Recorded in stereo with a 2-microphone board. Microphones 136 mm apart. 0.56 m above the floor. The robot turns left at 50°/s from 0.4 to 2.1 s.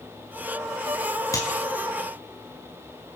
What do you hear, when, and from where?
1.3 s a clap: 25° left (ahead or behind), 5.5 m; by 1.5 s 35° left (ahead or behind), 5.5 m